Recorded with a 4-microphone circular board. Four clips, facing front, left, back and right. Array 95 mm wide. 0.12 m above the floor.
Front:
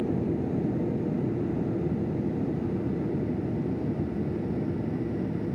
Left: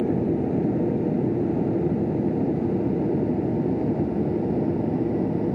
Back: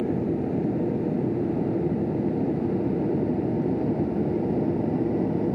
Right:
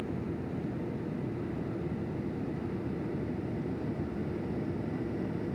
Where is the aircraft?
110° left; by 5.6 s 130° left.